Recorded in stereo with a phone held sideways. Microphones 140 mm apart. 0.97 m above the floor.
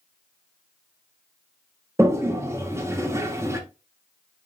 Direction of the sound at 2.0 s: 20° right (ahead or behind).